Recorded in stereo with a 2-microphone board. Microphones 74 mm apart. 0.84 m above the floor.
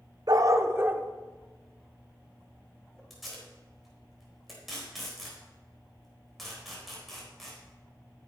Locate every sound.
0.3 s a dog barking: 55° right (ahead or behind), 0.7 m; by 3.0 s 10° left (ahead or behind), 2 m
3.1 s tape being pulled: centre (ahead or behind), 4 m